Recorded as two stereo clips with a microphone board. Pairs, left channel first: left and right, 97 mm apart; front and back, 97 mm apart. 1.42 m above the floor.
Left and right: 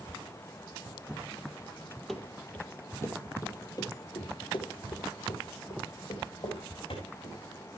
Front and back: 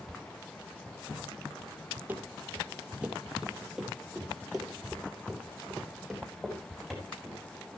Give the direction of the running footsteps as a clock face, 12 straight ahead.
6 o'clock.